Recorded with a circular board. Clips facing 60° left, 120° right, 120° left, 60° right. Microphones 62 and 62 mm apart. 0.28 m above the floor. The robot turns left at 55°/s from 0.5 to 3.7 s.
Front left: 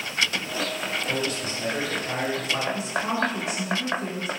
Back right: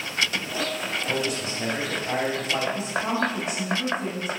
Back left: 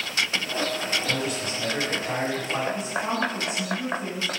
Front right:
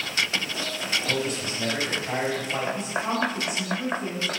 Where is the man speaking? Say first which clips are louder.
Back right 1 dB, even; 40° right, 1.6 m; by 2.6 s 125° right, 1.6 m.